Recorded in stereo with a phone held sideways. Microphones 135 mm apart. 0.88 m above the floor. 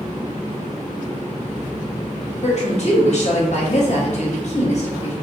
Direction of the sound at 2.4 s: 55° left (ahead or behind).